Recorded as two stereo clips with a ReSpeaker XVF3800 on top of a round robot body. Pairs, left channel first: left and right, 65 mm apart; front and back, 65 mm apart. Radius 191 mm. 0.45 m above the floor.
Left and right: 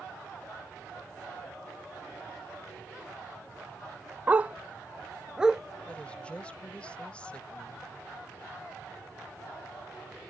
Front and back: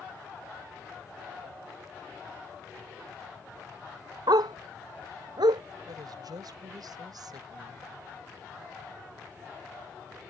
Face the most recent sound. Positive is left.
turn(degrees=165)